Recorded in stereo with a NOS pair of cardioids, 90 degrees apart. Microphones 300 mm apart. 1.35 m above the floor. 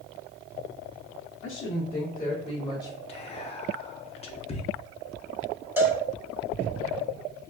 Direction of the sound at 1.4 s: 50° left.